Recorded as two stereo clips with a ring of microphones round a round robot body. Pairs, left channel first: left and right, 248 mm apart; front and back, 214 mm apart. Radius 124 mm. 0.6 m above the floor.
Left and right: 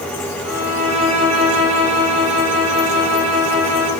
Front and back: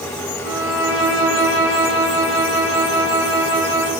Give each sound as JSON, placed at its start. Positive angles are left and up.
{"t": 0.4, "sound": "a violin", "azimuth_deg": -20, "distance_m": 5.5}